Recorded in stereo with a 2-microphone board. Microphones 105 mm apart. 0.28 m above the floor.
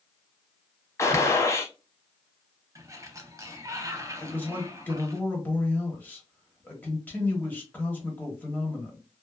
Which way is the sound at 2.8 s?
30° right (ahead or behind).